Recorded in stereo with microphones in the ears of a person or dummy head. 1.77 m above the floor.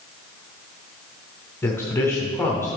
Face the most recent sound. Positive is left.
turn(degrees=10)  # may be behind; listen again after turning